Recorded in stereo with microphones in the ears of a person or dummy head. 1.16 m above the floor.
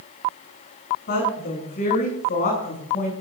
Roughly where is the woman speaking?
Left.